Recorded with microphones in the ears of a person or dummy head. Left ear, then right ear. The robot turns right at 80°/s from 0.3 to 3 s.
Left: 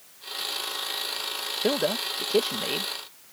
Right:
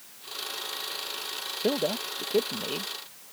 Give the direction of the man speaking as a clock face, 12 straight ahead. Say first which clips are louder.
Left 2 dB; 11 o'clock.